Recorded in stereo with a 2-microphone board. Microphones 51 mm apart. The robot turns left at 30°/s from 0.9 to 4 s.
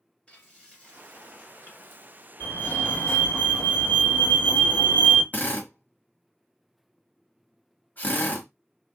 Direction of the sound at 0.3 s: 155° left.